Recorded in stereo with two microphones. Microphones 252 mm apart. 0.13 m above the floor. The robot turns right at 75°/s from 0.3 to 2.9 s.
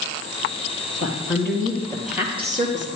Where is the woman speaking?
100° left, 2.5 m; by 2.9 s 120° right, 2.5 m.